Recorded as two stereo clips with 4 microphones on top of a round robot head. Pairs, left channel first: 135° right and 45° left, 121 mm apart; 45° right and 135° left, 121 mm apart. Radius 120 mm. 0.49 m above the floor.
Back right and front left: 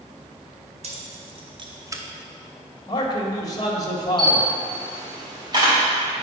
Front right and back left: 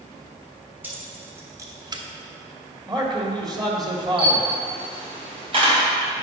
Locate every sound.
0.8 s keys jangling: 65° left, 1.9 m; by 2.0 s 105° left, 0.9 m
2.9 s a man speaking: straight behind, 1.7 m
4.2 s a camera shutter: 95° left, 3 m